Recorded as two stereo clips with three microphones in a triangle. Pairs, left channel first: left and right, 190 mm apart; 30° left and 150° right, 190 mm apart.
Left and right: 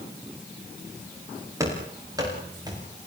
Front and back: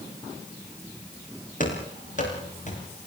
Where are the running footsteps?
15° right, 9 m; by 2.8 s 20° right, 9.5 m.